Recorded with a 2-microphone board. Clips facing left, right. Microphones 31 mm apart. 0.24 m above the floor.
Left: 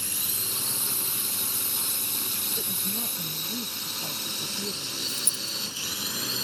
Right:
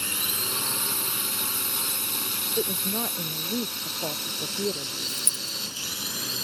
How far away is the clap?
No clap in this recording.